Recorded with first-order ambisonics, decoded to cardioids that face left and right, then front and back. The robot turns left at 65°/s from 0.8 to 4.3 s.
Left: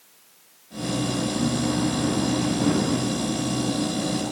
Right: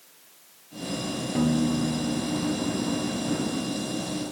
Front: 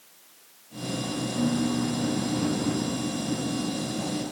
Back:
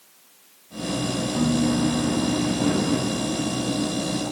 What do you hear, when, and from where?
1.4 s a piano: 140° right, 1.4 m; by 4.0 s 45° left, 1.4 m